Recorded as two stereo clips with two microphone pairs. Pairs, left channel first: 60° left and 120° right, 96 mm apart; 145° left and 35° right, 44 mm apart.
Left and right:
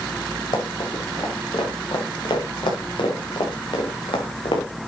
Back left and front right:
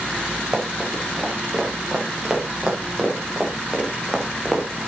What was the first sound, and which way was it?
Running footsteps, 35° left.